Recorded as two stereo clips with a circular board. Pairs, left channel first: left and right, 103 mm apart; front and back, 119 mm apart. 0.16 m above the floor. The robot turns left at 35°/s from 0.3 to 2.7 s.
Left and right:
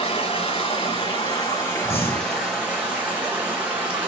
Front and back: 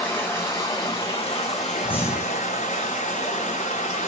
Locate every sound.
0.0 s running water: 75° left, 1.5 m; by 4.1 s 10° right, 1.5 m
1.9 s breathing: 75° left, 1.7 m; by 2.5 s 55° left, 1.7 m